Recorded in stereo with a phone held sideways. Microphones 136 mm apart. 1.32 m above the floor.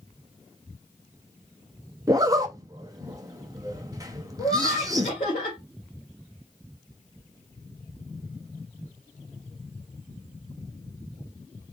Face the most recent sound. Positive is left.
turn(degrees=75)  # may be behind; listen again after turning